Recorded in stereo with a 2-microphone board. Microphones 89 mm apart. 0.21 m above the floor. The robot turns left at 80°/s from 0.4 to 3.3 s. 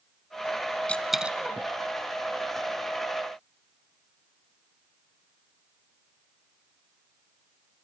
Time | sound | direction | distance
0.9 | a dropped coin | 15° left (ahead or behind) | 0.8 m